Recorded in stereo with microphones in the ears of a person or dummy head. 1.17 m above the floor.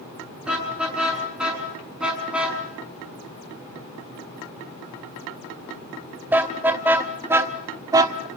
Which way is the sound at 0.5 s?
Centre (ahead or behind).